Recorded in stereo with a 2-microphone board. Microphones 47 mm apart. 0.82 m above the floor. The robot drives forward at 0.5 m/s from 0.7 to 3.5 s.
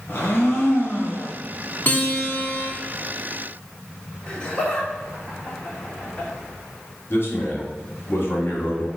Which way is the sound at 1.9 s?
45° left (ahead or behind).